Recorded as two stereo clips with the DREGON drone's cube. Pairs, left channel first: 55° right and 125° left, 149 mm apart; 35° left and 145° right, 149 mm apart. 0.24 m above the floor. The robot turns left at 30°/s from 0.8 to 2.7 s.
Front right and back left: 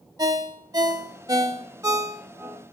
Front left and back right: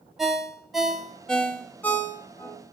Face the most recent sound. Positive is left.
turn(degrees=70)